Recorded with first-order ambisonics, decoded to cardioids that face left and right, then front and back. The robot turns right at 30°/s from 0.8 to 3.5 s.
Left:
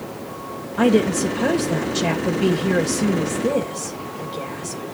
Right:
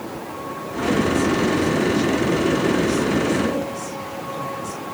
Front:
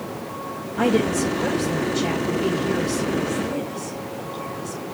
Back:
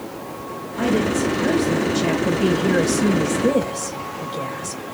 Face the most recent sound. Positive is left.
turn(degrees=155)